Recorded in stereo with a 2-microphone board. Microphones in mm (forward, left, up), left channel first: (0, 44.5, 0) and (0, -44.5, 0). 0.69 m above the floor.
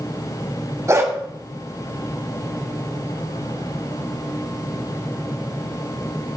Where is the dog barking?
35° right (ahead or behind), 1.5 m.